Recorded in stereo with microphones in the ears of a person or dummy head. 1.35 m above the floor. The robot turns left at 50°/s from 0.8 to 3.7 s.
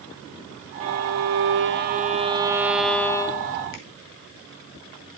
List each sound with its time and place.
0.8 s a violin: 70° right, 1.8 m; by 3.6 s 150° left, 1.8 m
3.7 s a finger snap: 65° left (ahead or behind), 3.5 m